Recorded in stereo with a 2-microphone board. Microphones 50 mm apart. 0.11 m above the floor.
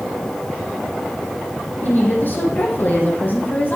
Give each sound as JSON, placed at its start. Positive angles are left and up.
{"t": 1.8, "sound": "a woman speaking", "side_deg": 40, "distance_m": 4.0}